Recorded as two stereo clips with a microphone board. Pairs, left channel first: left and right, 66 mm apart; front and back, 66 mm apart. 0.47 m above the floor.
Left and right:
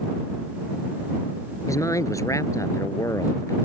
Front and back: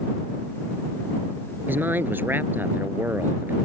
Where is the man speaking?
120° left.